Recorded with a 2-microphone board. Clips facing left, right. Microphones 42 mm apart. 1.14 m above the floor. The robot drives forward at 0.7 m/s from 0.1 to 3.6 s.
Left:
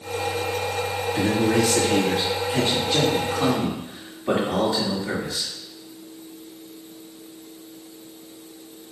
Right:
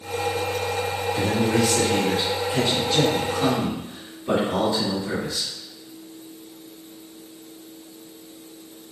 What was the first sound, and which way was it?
A man speaking, 75° left (ahead or behind).